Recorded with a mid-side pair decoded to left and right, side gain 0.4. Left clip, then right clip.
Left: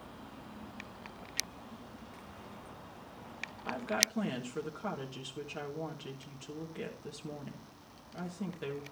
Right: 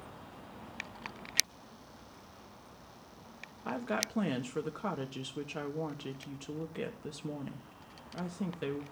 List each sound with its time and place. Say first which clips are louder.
3.6 s a woman speaking: left 2 dB; 40° right, 1.5 m